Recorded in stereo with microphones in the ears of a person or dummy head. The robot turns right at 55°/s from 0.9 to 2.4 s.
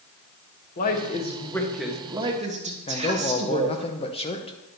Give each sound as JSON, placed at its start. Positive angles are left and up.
{"t": 0.8, "sound": "a woman speaking", "azimuth_deg": 130, "distance_m": 1.2}
{"t": 2.9, "sound": "a man speaking", "side_deg": 30, "distance_m": 0.8}